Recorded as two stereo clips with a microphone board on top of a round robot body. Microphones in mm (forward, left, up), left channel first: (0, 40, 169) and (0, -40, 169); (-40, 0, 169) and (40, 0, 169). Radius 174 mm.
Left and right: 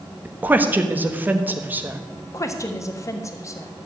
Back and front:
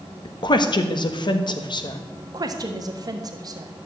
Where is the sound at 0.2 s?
155° right, 1.5 m.